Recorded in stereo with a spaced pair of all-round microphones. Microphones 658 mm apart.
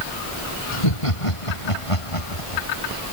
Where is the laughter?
55° left (ahead or behind); by 2.6 s 50° left (ahead or behind).